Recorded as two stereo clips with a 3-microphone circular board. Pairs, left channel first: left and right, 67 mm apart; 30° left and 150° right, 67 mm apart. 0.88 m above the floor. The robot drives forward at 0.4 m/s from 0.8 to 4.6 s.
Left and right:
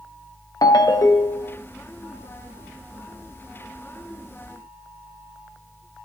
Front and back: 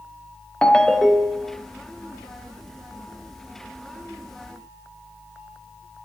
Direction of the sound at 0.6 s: 110° left.